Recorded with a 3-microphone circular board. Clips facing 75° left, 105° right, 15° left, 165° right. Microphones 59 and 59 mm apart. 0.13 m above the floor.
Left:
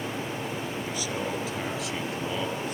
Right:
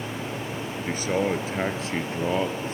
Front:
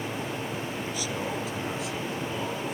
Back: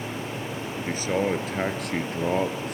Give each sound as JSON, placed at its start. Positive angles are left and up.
{"t": 0.9, "sound": "a man speaking", "azimuth_deg": -135, "distance_m": 1.9}